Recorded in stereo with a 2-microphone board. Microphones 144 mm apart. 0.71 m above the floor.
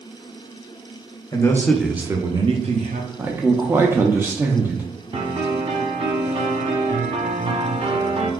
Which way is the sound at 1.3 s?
25° left (ahead or behind).